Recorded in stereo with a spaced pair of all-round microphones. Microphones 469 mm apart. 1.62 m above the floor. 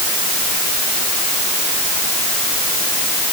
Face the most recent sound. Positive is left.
No sound to turn to.